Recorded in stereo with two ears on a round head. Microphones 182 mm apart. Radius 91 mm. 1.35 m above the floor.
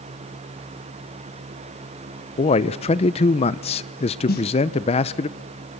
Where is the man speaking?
30° left (ahead or behind), 0.5 m.